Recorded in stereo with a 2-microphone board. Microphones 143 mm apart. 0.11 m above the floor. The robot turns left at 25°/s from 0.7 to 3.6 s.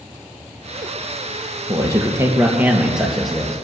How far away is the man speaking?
About 3 m.